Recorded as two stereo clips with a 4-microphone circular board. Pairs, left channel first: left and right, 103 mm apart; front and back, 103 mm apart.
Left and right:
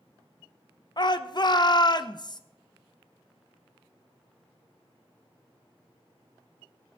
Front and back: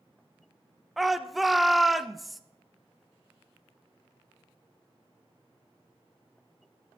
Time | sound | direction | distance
1.0 | a shout | 90° left | 0.5 m